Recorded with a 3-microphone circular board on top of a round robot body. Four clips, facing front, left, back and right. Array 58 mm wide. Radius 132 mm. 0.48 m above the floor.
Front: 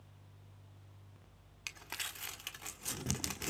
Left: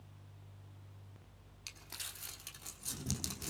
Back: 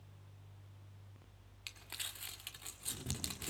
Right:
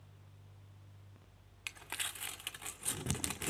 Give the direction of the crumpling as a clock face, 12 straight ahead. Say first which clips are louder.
Right 8 dB, front 5 dB; 2 o'clock.